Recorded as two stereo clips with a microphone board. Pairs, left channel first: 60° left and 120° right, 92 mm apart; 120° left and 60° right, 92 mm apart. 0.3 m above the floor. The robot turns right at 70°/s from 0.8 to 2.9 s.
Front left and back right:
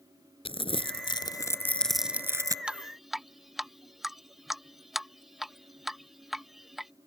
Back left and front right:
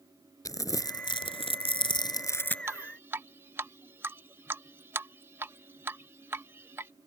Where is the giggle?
No giggle in this recording.